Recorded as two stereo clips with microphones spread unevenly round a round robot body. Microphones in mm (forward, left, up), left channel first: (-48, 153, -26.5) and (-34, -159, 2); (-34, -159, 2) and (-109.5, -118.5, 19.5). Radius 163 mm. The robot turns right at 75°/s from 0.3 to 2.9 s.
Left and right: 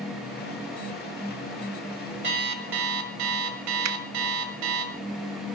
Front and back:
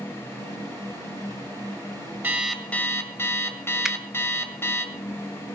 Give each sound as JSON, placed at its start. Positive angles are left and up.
{"t": 2.2, "sound": "an alarm clock", "azimuth_deg": -145, "distance_m": 2.0}
{"t": 3.9, "sound": "a finger snap", "azimuth_deg": -110, "distance_m": 0.9}